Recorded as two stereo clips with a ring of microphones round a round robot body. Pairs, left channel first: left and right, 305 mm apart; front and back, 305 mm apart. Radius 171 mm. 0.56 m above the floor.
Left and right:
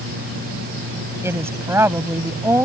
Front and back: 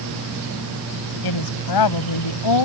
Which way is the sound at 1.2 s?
10° right.